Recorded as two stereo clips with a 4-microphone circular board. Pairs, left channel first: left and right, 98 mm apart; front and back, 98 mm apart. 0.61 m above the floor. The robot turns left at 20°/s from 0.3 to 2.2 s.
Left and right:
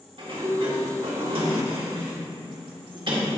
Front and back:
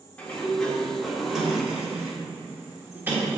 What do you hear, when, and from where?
0.2 s a sliding door: 75° right, 1.4 m; by 3.3 s 115° right, 1.4 m